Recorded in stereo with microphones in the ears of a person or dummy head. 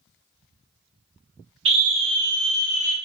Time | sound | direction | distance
1.6 | a scream | 35° right (ahead or behind) | 0.8 m